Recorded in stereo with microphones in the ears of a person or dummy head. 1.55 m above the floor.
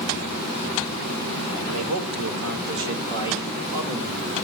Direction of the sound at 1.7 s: 75° right (ahead or behind).